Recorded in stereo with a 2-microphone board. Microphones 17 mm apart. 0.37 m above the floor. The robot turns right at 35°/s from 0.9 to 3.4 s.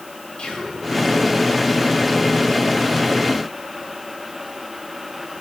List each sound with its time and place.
0.4 s whispering: 50° left (ahead or behind), 1.9 m